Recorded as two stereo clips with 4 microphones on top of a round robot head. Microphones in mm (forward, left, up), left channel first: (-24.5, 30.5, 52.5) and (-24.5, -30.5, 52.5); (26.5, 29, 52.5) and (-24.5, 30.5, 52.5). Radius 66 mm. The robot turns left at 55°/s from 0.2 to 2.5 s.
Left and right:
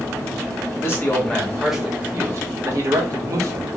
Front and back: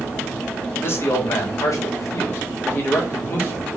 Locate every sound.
0.8 s a man speaking: 45° left, 1.7 m; by 3.8 s 50° right, 1.7 m